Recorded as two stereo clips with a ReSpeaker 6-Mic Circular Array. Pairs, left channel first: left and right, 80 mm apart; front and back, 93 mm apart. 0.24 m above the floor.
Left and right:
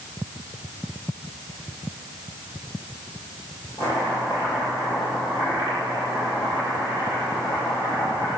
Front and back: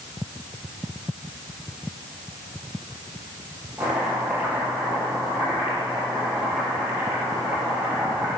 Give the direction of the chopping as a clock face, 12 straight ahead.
9 o'clock.